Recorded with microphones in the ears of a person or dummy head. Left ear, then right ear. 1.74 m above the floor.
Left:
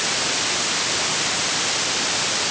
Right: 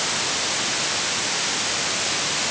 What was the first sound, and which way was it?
Only background noise.